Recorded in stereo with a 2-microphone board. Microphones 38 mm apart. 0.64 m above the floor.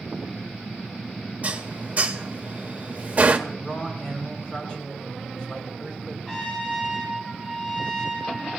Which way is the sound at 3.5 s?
25° left (ahead or behind).